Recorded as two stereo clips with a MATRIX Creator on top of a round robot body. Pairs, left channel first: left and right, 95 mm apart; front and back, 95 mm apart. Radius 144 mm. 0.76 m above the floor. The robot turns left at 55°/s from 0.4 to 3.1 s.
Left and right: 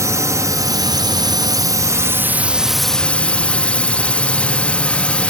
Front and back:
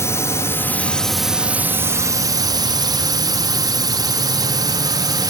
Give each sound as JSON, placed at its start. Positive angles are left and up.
{"t": 0.0, "sound": "a drone", "azimuth_deg": -50}